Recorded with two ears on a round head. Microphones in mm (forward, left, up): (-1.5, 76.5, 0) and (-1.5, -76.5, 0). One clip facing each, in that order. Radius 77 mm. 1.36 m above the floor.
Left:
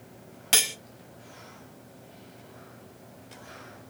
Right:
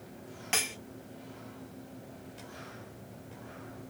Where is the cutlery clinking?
45° left (ahead or behind), 0.9 m.